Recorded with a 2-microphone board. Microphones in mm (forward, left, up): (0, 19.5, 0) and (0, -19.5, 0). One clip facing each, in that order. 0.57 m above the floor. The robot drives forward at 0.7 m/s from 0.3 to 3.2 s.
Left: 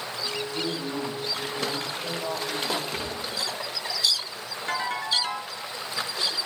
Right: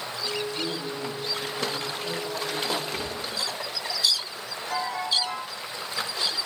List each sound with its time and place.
0.5 s a man speaking: 55° left (ahead or behind), 4.5 m; by 2.8 s 70° left (ahead or behind), 4 m
2.9 s a gunshot: 10° left (ahead or behind), 3 m
4.7 s a ringtone: 50° left (ahead or behind), 3.5 m